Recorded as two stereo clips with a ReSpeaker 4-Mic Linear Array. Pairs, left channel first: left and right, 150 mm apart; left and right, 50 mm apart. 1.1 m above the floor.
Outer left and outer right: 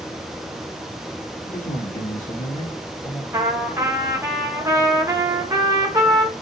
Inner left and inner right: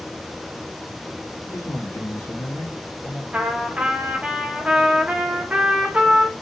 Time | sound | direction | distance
1.5 | a man speaking | 60° left (ahead or behind) | 1.7 m
3.3 | a trumpet | 20° right (ahead or behind) | 0.7 m